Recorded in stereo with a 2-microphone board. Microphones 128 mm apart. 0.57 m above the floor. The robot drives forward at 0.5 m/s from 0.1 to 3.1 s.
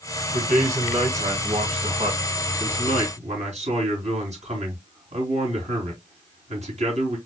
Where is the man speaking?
80° right, 3 m; by 7.2 s 60° right (ahead or behind), 3.5 m.